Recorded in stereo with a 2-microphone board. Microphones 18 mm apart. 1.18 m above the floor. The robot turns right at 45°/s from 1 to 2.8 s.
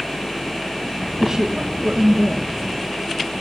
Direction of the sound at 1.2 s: 150° right.